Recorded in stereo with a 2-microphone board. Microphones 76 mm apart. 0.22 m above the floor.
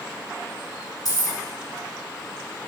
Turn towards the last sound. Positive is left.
turn(degrees=60)  # may be behind; listen again after turning